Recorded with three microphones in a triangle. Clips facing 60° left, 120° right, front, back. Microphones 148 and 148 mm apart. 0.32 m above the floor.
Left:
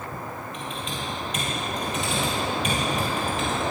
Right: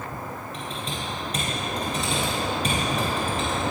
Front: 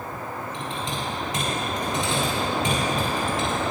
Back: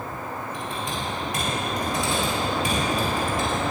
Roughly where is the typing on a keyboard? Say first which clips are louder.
Even, even; ahead right.